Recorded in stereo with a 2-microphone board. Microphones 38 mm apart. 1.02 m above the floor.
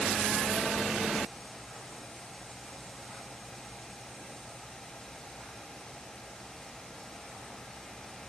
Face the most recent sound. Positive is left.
No sound to turn to.